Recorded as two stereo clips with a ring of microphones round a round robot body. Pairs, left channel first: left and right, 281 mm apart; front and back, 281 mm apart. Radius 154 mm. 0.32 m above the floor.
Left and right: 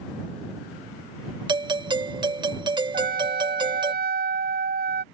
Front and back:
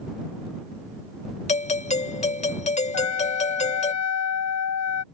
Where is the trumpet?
30° right.